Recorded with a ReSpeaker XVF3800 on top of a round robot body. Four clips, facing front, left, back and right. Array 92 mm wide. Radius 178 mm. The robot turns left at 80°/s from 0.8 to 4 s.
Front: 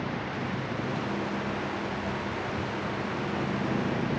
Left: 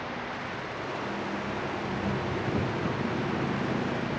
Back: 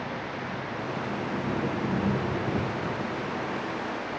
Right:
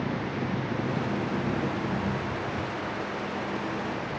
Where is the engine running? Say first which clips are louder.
Right 4 dB, front 1 dB; 80° right; by 4.2 s 25° left.